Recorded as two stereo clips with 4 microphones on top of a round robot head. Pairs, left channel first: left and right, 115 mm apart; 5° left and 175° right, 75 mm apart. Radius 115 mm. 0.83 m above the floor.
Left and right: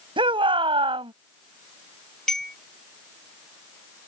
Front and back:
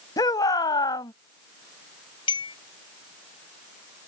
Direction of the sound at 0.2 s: 45° right.